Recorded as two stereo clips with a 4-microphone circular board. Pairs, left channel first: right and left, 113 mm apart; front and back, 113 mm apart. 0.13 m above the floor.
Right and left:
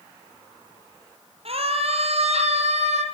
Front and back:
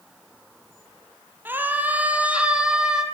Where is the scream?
110° left, 4.5 m; by 3.0 s 95° left, 6.5 m.